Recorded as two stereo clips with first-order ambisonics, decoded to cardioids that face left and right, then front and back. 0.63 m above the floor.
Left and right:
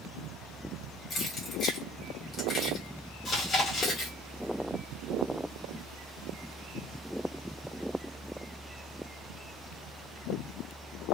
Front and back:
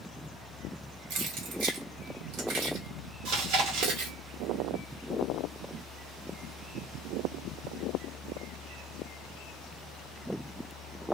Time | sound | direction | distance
1.1 | keys jangling | 155° left | 1.2 m
3.2 | chewing | 155° left | 1.5 m